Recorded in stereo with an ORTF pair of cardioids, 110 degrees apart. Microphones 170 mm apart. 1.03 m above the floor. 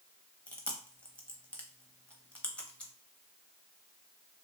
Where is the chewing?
5° left, 0.7 m.